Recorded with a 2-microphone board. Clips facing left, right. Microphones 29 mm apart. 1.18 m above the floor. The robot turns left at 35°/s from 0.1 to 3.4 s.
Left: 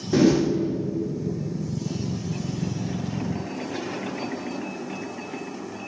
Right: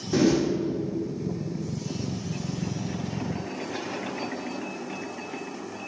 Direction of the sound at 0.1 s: 10° left (ahead or behind).